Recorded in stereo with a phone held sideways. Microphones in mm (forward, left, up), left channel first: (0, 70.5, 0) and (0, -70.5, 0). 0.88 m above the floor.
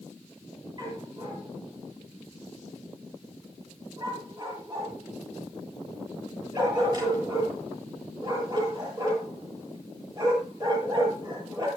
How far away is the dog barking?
About 8 m.